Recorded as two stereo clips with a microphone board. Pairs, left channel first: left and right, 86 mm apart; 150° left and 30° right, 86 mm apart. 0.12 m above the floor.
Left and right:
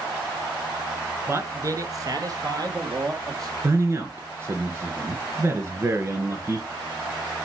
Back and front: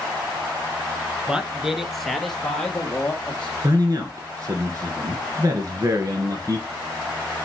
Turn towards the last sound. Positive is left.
turn(degrees=-50)